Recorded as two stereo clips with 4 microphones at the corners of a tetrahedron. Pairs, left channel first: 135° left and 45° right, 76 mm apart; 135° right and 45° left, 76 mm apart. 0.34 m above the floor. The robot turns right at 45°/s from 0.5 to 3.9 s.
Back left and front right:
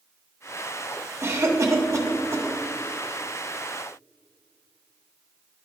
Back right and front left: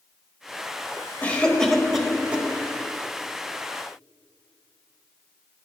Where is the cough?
75° right, 1.2 m; by 2.5 s 20° right, 1.2 m.